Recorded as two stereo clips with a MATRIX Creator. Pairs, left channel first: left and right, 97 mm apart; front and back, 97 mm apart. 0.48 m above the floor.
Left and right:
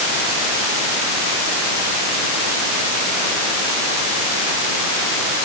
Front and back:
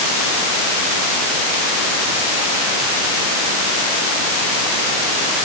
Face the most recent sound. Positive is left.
No sound to turn to.